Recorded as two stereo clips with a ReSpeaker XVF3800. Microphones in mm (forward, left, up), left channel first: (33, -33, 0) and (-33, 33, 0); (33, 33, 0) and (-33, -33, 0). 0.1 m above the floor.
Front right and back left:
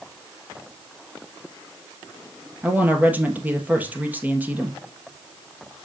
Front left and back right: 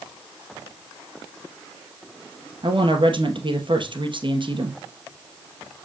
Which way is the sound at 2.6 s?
155° right.